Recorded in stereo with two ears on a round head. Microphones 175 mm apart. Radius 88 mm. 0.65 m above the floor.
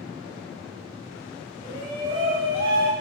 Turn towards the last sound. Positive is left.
turn(degrees=-35)  # may be behind; listen again after turning